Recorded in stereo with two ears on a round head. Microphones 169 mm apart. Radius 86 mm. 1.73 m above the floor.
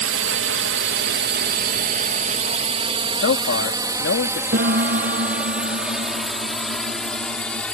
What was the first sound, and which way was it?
A drone, 70° right (ahead or behind).